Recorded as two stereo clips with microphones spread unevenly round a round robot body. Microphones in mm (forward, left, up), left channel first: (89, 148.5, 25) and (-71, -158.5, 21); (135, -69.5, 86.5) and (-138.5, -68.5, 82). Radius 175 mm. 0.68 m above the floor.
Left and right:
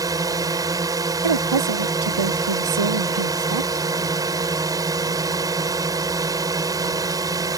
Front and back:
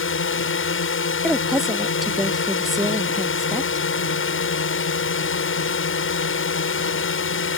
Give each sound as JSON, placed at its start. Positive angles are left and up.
{"t": 0.0, "sound": "a drone", "azimuth_deg": -40}
{"t": 1.2, "sound": "a woman speaking", "azimuth_deg": -90}